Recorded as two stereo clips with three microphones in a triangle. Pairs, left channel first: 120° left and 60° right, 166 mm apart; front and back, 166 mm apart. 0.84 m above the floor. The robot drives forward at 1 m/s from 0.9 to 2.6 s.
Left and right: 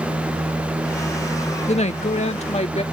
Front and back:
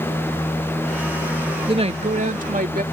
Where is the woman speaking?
140° left; by 2.8 s 160° left.